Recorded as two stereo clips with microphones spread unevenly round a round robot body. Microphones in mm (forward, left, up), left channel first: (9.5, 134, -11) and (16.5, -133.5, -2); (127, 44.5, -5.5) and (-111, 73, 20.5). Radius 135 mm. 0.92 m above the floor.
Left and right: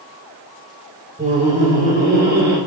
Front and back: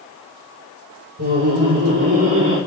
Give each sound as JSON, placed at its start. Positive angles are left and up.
{"t": 1.2, "sound": "laughter", "azimuth_deg": -155, "distance_m": 2.5}